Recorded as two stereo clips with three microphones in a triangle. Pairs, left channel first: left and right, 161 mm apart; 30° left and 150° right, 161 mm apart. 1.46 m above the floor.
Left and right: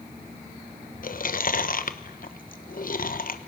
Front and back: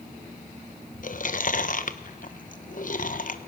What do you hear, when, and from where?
1.0 s chewing: 65° left, 1.1 m